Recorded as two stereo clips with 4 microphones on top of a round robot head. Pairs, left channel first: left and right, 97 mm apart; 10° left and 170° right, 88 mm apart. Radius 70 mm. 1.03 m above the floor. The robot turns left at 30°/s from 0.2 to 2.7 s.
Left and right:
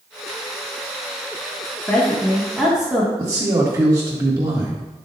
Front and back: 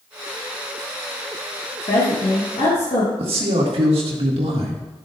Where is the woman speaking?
15° left, 1.9 m; by 3.1 s 10° right, 1.9 m.